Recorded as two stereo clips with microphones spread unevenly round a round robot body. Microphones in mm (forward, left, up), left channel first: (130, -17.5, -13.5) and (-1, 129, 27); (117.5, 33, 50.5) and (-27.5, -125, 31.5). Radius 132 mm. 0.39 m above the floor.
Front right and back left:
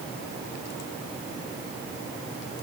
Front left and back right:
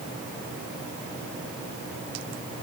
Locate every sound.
Only background noise.